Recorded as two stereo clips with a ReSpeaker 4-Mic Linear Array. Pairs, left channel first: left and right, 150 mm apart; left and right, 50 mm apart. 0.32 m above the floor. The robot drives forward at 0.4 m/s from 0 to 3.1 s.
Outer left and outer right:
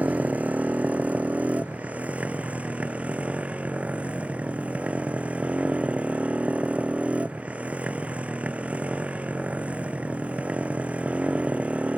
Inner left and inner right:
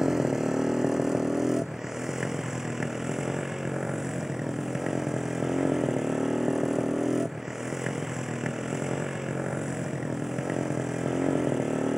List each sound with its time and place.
0.0 s a motorcycle: 10° right (ahead or behind)